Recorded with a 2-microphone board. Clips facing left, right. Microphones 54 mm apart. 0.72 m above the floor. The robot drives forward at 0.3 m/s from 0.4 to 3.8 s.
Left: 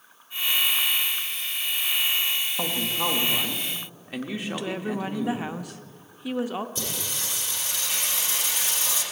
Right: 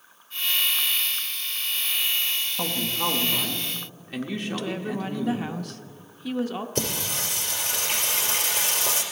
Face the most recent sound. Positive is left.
turn(degrees=-65)  # may be behind; listen again after turning